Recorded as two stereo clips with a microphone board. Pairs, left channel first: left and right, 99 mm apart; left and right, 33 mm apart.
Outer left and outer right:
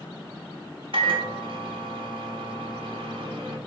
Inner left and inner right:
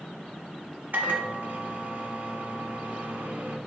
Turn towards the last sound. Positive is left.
turn(degrees=-60)  # may be behind; listen again after turning